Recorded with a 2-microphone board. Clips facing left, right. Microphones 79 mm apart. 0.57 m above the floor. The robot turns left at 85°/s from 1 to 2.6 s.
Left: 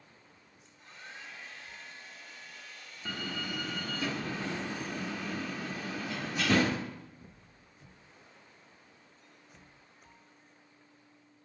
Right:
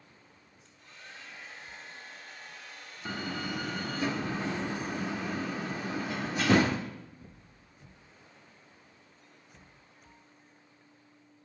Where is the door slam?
25° right (ahead or behind), 0.7 m.